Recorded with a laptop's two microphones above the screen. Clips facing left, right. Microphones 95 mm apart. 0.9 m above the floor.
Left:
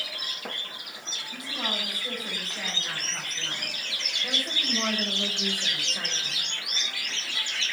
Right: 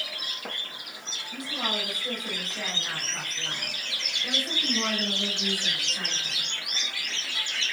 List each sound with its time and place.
1.3 s a woman speaking: 5° right (ahead or behind), 6.5 m; by 6.5 s 25° left (ahead or behind), 4.5 m